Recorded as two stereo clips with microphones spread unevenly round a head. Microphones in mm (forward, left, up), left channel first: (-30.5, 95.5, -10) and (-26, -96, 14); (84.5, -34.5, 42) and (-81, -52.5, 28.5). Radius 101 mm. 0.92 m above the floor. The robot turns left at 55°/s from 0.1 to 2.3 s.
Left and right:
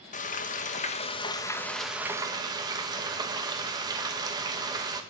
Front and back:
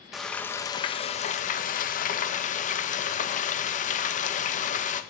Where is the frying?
105° left, 1.2 m; by 5.0 s 15° right, 1.2 m.